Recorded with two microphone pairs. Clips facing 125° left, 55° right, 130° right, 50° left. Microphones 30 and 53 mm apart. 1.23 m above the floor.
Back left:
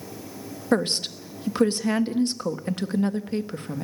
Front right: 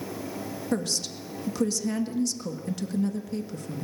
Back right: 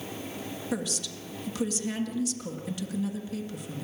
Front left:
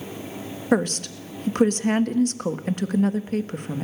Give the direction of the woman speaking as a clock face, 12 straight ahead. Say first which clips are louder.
Back left 7 dB, front left 13 dB; 9 o'clock.